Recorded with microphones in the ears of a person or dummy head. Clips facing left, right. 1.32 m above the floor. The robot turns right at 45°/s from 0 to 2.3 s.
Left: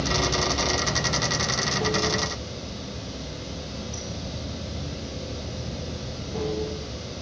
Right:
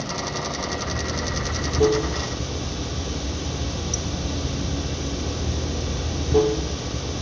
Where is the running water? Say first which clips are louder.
Left 3 dB; 155° left, 0.7 m; by 7.2 s 100° right, 0.7 m.